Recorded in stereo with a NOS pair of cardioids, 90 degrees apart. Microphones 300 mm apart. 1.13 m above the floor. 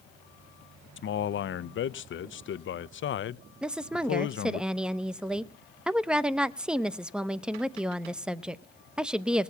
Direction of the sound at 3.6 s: 5° right.